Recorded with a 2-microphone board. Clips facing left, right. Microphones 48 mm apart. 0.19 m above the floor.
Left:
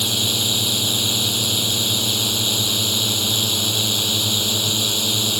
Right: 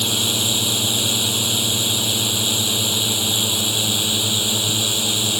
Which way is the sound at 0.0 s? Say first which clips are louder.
Right 1 dB; 15° right (ahead or behind).